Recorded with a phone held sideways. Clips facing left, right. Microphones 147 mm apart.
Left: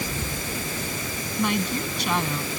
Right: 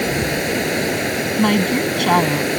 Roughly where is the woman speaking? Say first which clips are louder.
Right 9 dB; right.